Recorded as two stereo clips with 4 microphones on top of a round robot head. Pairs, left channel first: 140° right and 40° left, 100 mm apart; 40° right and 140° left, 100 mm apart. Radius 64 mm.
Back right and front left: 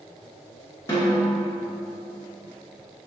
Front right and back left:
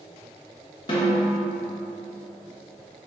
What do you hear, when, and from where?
0.9 s a snare drum: 80° right, 1.3 m